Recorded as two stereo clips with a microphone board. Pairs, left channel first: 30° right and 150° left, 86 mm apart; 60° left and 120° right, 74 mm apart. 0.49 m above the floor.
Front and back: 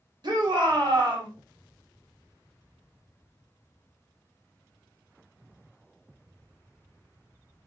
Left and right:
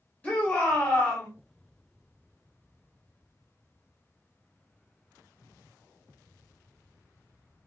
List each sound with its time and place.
0.2 s a shout: 130° left, 2 m